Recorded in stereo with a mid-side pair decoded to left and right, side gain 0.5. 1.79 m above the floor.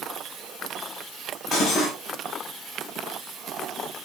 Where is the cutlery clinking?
60° left, 8.5 m.